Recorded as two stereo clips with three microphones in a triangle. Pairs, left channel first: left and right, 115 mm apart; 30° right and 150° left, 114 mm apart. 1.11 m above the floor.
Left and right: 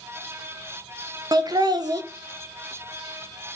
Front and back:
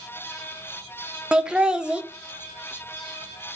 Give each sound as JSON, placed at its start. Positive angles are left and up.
{"t": 1.3, "sound": "laughter", "azimuth_deg": -130, "distance_m": 0.6}